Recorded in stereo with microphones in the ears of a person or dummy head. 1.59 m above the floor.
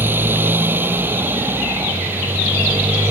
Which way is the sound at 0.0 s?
15° right (ahead or behind).